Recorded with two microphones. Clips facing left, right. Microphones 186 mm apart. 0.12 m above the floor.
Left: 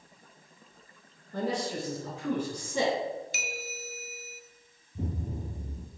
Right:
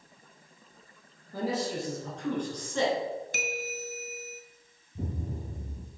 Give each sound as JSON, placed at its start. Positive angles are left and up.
{"t": 1.3, "sound": "a man speaking", "side_deg": -5, "distance_m": 2.5}
{"t": 3.3, "sound": "a bell", "side_deg": -55, "distance_m": 0.6}
{"t": 5.0, "sound": "an explosion", "side_deg": 0, "distance_m": 1.2}